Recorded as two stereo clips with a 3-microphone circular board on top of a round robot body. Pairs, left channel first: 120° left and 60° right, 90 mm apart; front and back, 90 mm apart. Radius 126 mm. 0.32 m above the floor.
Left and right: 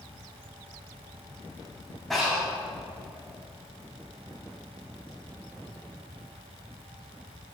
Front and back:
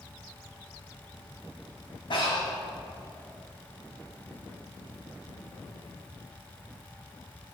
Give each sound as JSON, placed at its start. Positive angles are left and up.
{"t": 2.1, "sound": "breathing", "azimuth_deg": 30, "distance_m": 2.5}